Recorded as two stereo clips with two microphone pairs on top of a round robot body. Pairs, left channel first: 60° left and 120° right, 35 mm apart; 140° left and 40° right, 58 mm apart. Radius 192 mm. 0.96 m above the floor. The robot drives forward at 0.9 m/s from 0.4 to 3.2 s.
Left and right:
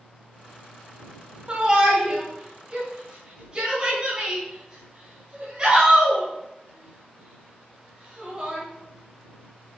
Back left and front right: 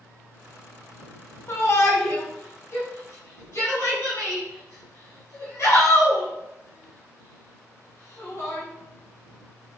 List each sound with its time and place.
1.5 s a shout: straight behind, 3 m